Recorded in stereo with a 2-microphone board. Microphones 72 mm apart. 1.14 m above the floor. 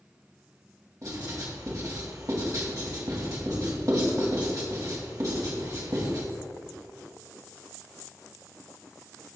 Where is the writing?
55° right (ahead or behind), 2.5 m.